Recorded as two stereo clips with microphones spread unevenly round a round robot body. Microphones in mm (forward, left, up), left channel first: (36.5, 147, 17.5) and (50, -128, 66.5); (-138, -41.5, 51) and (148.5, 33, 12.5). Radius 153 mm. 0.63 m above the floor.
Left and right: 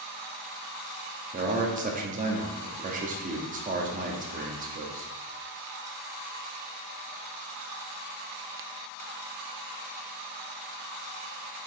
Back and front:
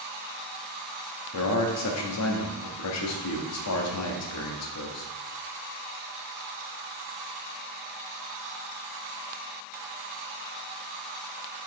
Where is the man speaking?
150° right, 1.1 m.